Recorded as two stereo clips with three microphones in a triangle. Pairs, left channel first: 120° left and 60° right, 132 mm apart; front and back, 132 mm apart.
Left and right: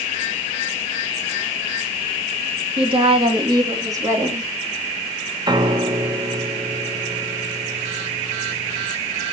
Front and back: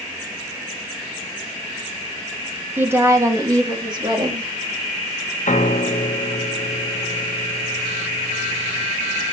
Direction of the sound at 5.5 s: 5° right.